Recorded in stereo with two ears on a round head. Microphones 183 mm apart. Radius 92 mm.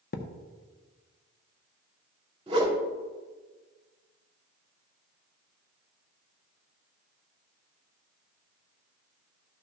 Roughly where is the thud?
Left.